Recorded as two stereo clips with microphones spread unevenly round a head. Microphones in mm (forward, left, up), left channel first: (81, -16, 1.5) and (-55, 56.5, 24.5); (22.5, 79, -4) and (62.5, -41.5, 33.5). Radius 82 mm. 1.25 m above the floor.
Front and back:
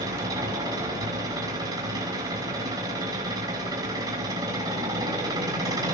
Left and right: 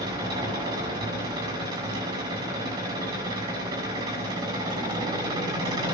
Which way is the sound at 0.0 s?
140° right.